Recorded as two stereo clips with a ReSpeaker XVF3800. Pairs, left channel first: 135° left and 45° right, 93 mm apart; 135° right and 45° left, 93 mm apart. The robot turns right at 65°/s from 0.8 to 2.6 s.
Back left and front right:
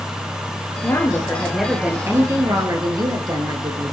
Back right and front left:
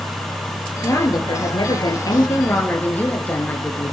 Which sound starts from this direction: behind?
A woman speaking, at 0.8 s.